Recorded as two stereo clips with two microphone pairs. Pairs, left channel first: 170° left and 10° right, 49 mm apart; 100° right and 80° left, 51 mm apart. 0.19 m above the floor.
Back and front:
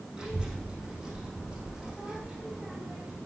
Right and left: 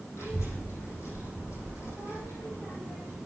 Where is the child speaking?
80° right, 5.5 m.